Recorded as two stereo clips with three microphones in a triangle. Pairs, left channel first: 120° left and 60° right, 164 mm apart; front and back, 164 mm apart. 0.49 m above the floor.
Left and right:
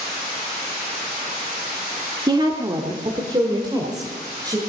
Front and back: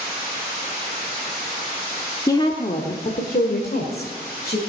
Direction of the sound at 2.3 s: 40° right.